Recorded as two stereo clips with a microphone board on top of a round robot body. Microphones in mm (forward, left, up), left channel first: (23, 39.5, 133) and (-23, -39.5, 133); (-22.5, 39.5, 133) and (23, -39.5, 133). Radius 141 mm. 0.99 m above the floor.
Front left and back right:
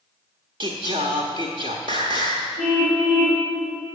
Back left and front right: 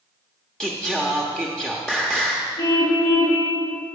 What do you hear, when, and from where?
0.6 s singing: 155° right, 0.7 m
2.6 s a car horn: straight behind, 6 m